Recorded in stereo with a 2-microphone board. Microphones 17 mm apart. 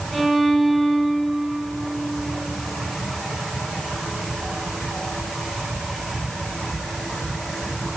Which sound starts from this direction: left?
A violin, at 0.1 s.